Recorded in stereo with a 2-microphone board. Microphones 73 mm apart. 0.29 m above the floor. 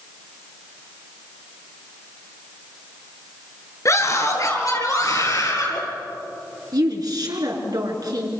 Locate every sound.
3.9 s a scream: 45° left (ahead or behind), 4 m; by 5.8 s 55° left (ahead or behind), 6 m
6.7 s a woman speaking: 65° right (ahead or behind), 4.5 m